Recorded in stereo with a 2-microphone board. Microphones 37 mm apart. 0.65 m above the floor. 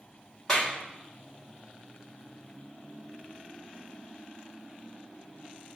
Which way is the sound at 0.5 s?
15° left (ahead or behind).